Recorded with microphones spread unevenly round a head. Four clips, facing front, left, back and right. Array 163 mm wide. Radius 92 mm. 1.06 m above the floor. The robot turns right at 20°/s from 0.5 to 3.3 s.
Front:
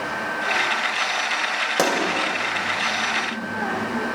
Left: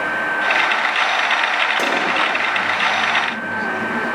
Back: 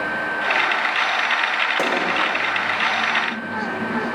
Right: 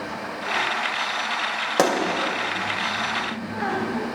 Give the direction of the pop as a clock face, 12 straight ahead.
1 o'clock.